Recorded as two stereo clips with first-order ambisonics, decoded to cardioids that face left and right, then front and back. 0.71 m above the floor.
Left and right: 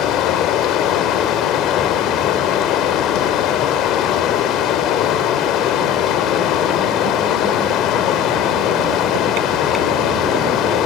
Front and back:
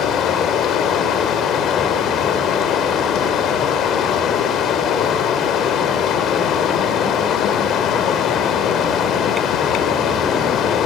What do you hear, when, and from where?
0.0 s running water: 50° left, 2.5 m